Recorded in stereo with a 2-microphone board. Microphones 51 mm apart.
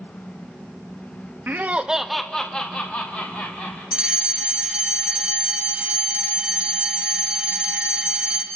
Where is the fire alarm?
20° right (ahead or behind), 1.7 m.